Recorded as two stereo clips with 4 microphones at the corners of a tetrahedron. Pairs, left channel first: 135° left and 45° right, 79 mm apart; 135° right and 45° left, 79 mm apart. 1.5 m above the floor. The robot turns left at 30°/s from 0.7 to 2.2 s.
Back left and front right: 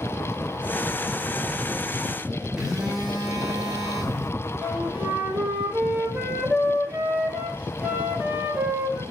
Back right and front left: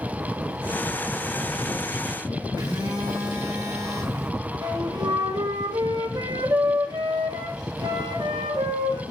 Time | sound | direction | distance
2.6 | a phone buzzing | 40° left | 2.5 m
4.6 | a flute | 20° left | 1.4 m